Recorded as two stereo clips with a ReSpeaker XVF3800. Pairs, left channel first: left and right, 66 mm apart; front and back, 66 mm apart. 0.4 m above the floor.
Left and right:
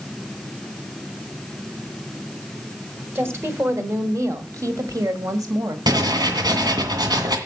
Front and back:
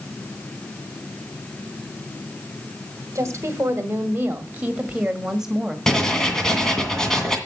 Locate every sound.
3.1 s a woman speaking: 140° right, 2.0 m; by 5.8 s 95° right, 1.9 m
5.9 s writing: 80° right, 2 m